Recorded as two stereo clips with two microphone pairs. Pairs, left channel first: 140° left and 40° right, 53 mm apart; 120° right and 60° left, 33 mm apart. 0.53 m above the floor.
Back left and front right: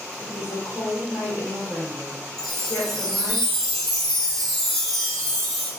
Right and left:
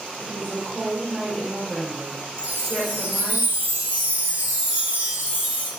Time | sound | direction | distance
0.2 | a woman speaking | 135° left | 1.3 m
2.4 | a chime | 55° left | 0.7 m